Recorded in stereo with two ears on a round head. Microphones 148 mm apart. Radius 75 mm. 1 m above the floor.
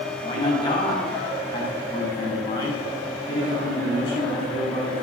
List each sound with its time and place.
0.2 s a man speaking: 25° left (ahead or behind), 7.5 m